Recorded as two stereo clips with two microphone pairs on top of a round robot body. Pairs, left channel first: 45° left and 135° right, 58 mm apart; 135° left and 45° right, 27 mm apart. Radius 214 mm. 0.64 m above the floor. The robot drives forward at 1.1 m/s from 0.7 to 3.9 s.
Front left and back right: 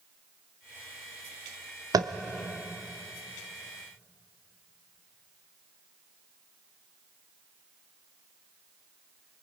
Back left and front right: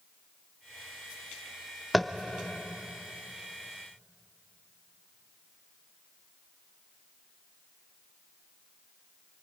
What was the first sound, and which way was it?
Tapping, 135° right.